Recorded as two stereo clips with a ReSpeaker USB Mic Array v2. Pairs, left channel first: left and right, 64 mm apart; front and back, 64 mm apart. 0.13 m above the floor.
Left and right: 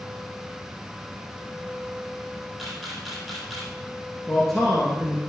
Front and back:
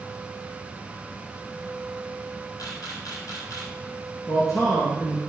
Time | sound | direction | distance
2.6 | a camera shutter | straight ahead | 3 m
4.3 | a man speaking | 5° left | 2 m